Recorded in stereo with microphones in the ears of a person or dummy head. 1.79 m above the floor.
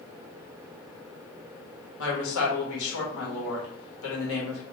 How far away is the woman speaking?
About 1.3 m.